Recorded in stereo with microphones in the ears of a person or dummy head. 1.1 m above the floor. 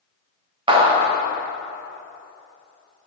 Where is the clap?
30° right (ahead or behind), 1.1 m.